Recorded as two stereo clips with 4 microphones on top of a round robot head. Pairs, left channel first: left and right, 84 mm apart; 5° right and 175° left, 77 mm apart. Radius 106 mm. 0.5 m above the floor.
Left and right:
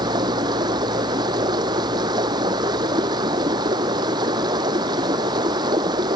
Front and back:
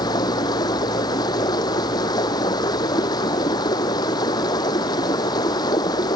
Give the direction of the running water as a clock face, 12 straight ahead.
2 o'clock.